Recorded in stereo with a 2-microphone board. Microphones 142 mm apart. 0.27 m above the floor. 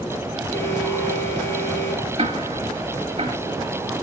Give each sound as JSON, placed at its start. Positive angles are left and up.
{"t": 0.5, "sound": "an alarm", "side_deg": 20, "distance_m": 8.0}
{"t": 2.2, "sound": "ticking", "side_deg": -50, "distance_m": 1.3}